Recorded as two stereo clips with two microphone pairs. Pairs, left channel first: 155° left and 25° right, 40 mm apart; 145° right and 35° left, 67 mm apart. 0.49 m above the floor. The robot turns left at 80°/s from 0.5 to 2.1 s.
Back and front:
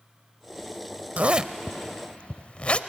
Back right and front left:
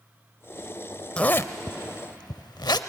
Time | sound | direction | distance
1.2 | a zipper | 70° right | 0.6 m